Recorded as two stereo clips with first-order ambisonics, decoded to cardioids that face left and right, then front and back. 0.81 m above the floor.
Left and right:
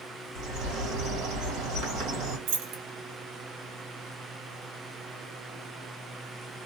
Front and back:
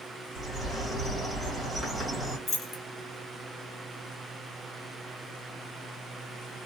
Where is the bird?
85° right, 1.8 m.